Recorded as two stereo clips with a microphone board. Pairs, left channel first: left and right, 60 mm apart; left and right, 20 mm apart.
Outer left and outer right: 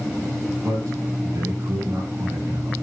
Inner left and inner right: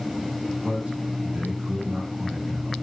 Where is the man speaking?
75° right (ahead or behind), 5 m.